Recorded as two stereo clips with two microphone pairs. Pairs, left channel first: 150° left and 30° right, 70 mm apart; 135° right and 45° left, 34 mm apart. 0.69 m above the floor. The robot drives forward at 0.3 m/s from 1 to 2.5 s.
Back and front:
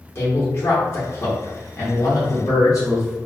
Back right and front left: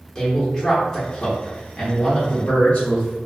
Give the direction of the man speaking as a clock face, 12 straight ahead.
6 o'clock.